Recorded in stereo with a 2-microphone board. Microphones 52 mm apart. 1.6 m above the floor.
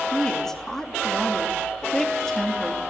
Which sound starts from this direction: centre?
A woman speaking, at 0.1 s.